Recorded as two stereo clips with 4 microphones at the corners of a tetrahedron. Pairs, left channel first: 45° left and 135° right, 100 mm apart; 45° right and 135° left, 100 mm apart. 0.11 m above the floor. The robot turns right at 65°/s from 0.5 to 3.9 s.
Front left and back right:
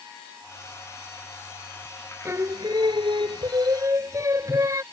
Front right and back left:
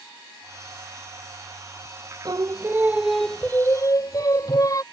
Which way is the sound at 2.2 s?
165° left.